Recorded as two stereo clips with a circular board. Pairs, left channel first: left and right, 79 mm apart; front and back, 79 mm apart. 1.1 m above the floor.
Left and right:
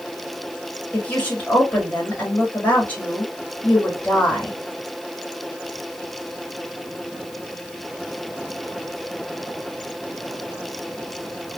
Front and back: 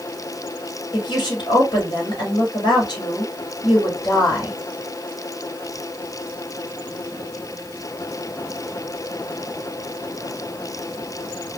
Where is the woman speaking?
15° left, 1.8 m.